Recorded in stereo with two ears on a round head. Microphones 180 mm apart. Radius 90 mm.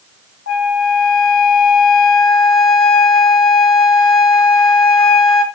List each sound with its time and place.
0.5 s a flute: 70° left (ahead or behind), 0.6 m